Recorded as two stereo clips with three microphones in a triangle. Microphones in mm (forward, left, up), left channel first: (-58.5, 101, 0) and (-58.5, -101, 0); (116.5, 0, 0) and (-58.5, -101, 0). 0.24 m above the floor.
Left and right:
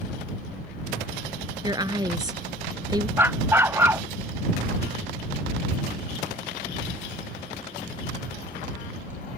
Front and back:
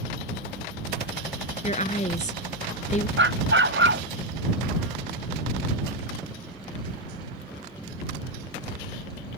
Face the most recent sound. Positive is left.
turn(degrees=-170)